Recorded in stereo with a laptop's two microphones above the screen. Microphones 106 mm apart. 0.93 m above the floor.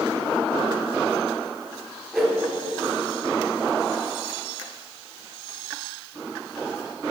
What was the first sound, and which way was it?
A whoosh, centre (ahead or behind).